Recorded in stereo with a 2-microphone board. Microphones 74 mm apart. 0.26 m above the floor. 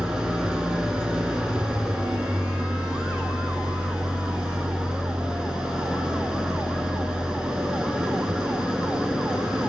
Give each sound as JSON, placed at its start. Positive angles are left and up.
{"t": 0.0, "sound": "an engine running", "side_deg": -10, "distance_m": 0.9}